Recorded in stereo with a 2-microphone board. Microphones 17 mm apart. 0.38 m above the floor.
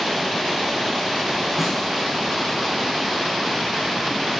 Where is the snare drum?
Centre (ahead or behind), 5.5 m.